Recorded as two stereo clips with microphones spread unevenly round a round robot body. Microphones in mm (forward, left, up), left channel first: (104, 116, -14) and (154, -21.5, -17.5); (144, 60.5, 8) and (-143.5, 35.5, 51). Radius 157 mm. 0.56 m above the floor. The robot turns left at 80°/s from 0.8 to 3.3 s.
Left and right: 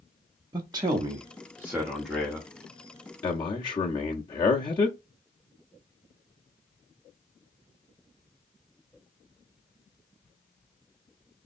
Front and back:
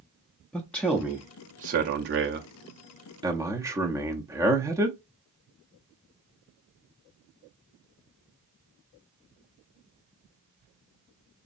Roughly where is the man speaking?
Ahead right.